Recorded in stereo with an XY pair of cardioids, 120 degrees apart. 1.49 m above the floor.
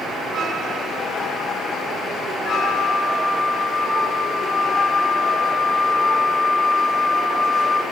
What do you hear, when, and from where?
2.5 s a flute: 25° left, 3 m